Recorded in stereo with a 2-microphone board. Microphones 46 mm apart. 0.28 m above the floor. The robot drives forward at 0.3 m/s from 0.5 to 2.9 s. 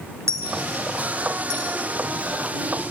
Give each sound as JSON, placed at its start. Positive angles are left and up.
{"t": 0.3, "sound": "a dropped coin", "side_deg": -70, "distance_m": 1.2}